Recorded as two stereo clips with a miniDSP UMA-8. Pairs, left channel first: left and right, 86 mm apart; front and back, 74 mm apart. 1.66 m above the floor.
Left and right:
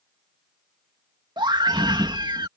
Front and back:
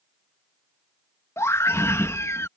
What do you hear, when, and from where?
1.4 s a scream: 55° right